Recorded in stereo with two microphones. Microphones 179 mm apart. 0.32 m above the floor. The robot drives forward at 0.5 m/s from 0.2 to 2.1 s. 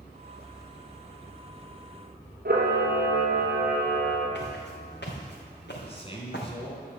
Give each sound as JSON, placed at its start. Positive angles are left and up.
{"t": 2.5, "sound": "a camera shutter", "side_deg": -65, "distance_m": 3.0}
{"t": 4.3, "sound": "footsteps", "side_deg": 80, "distance_m": 4.0}
{"t": 5.8, "sound": "a man speaking", "side_deg": 35, "distance_m": 3.0}